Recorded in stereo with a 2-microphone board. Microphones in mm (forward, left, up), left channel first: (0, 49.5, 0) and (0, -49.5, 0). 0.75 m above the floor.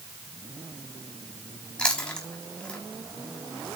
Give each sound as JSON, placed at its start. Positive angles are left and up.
{"t": 1.8, "sound": "chewing", "side_deg": 10, "distance_m": 6.0}